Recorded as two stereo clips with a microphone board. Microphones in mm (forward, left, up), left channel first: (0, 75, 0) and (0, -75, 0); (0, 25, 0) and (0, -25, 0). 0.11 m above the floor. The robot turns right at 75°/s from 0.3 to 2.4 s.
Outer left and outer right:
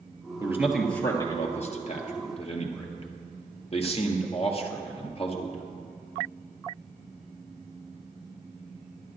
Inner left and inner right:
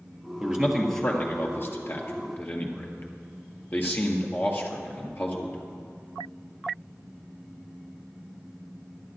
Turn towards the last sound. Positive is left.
turn(degrees=40)  # may be behind; listen again after turning